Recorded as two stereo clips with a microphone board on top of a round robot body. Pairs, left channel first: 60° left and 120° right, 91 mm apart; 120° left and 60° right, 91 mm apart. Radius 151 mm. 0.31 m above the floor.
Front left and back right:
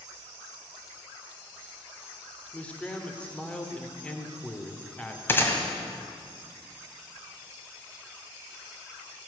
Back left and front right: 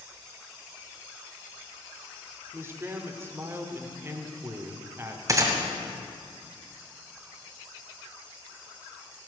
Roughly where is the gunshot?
Ahead.